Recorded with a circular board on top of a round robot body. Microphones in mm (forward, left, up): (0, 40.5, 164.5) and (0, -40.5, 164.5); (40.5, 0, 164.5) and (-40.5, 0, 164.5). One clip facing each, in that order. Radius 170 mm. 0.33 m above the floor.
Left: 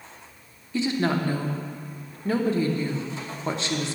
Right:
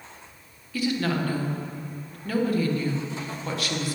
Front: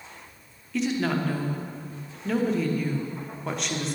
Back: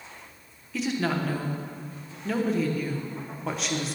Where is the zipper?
I don't hear a zipper.